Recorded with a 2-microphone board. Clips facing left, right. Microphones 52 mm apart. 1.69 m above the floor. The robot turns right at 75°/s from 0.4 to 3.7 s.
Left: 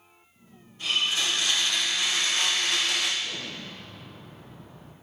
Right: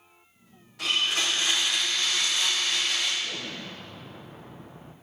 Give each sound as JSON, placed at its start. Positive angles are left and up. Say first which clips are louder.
{"t": 0.8, "sound": "a blender", "louder": "even", "azimuth_deg": -80, "distance_m": 1.5}
{"t": 3.2, "sound": "an explosion", "louder": "right 1 dB", "azimuth_deg": 180, "distance_m": 0.9}